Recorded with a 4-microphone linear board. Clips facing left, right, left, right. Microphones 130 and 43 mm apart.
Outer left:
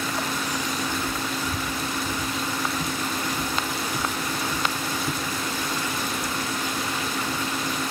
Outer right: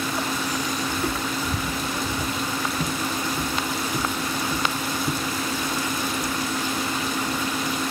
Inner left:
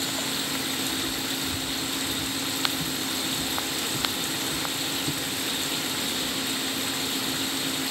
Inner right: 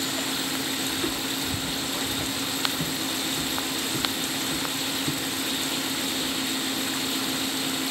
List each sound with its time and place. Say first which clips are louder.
0.9 s footsteps: outer right 2 dB, inner right 1 dB; 50° right (ahead or behind); by 7.5 s 10° right (ahead or behind)